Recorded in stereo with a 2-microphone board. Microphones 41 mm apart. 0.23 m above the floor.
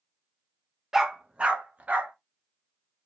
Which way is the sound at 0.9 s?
10° right (ahead or behind).